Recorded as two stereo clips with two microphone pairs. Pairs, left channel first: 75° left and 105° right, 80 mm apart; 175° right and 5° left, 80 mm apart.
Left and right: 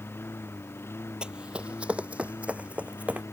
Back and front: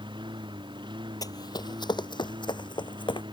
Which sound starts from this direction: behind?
Running footsteps, at 1.2 s.